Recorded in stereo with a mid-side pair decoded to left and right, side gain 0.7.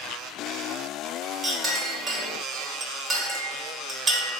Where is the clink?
35° right, 1.8 m.